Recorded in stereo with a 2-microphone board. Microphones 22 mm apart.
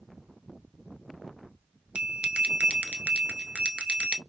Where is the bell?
55° right (ahead or behind), 0.7 m.